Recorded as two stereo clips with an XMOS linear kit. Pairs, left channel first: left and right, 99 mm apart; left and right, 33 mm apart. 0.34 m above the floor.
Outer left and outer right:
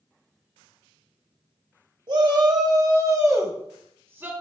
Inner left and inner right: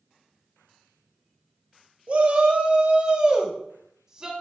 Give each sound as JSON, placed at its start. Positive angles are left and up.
{"t": 2.1, "sound": "a shout", "side_deg": -50, "distance_m": 1.4}